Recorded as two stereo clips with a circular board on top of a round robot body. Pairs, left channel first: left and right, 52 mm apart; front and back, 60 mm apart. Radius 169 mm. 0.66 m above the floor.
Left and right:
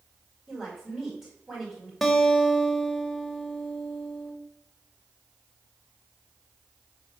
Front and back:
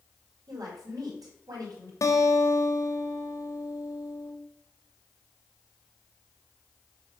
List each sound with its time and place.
0.5 s a woman speaking: 165° right, 2.5 m
2.0 s a guitar: straight ahead, 1.4 m